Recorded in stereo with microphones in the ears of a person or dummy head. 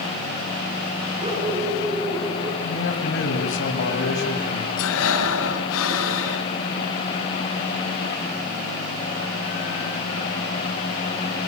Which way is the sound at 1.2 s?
25° right (ahead or behind).